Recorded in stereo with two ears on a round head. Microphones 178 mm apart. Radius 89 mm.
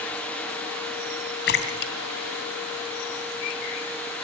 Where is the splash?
60° left (ahead or behind), 2.5 m.